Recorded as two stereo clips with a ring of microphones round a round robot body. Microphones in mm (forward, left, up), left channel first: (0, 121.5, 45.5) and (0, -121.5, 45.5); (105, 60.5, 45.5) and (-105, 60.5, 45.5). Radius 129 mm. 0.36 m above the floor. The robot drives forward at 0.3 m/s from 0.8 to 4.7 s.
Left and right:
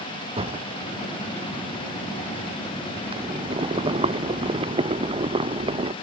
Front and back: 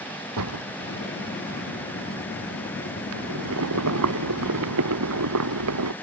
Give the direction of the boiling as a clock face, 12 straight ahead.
5 o'clock.